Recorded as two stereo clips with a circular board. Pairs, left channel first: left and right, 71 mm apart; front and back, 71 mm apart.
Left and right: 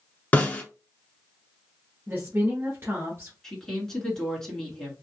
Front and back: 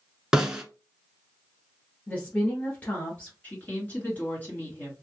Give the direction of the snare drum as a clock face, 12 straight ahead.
8 o'clock.